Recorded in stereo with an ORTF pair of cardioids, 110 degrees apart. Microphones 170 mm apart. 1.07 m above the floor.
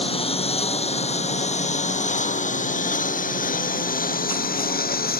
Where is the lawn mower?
35° left; by 5.2 s 60° left.